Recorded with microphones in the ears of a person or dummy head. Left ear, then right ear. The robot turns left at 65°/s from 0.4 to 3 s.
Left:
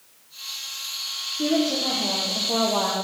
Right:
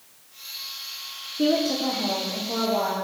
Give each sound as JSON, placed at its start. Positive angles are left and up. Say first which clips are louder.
{"t": 1.4, "sound": "a woman speaking", "louder": "right 1 dB", "azimuth_deg": -140, "distance_m": 0.9}